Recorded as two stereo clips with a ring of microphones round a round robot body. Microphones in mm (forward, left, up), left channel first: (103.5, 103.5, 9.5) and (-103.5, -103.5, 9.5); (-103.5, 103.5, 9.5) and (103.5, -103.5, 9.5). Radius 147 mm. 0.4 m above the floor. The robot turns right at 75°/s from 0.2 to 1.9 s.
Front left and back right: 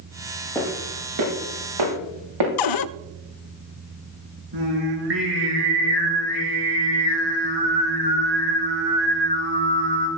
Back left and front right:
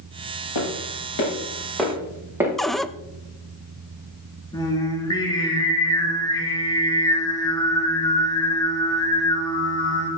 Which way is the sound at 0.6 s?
130° left.